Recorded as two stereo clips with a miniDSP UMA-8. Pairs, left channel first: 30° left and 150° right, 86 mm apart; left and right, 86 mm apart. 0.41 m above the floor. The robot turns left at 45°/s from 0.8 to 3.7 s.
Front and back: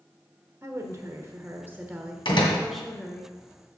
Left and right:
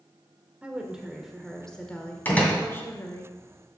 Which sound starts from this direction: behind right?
A woman speaking, at 0.6 s.